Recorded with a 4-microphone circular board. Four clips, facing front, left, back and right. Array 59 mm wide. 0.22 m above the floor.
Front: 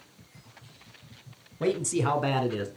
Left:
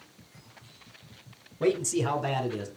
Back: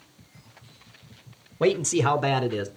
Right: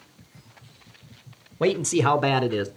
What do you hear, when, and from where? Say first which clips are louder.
1.6 s a man speaking: right 5 dB, back 5 dB; 135° right, 1.6 m; by 2.7 s 95° right, 2.5 m